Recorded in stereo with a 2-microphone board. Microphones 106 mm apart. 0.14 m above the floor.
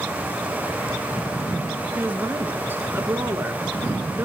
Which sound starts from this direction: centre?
A woman speaking, at 1.9 s.